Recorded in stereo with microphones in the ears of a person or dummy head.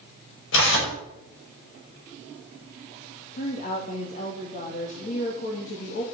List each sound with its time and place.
0.5 s tearing paper: 80° left, 6 m
3.3 s a woman speaking: 45° left (ahead or behind), 2.5 m